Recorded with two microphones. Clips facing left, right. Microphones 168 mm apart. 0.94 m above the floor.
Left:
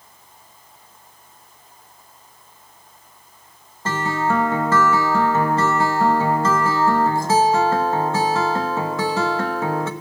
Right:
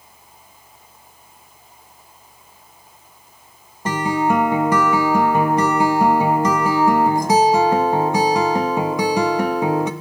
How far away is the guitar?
About 1.0 m.